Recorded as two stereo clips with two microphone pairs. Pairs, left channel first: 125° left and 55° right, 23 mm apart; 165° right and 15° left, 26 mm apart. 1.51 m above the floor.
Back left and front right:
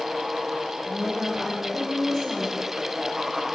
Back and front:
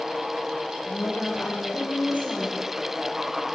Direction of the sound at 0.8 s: 175° left.